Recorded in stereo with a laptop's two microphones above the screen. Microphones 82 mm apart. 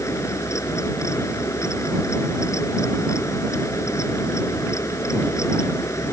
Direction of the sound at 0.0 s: 40° left (ahead or behind).